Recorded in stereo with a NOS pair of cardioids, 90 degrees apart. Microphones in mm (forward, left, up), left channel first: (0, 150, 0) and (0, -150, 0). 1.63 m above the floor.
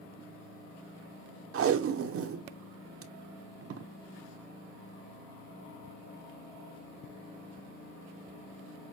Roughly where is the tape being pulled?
Ahead right.